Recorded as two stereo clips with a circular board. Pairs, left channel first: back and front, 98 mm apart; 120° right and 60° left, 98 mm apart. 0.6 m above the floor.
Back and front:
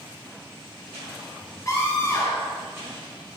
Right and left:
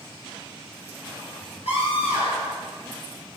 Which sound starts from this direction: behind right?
A scream, at 1.6 s.